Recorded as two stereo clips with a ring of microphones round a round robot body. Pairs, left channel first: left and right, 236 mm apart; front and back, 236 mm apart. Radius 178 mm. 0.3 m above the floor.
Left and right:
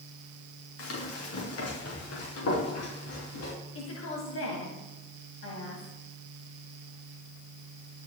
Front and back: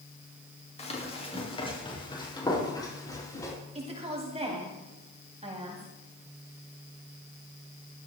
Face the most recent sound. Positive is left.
turn(degrees=120)